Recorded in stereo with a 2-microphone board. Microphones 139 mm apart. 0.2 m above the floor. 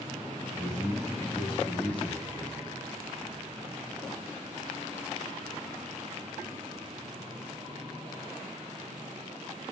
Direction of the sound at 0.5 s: 10° left (ahead or behind).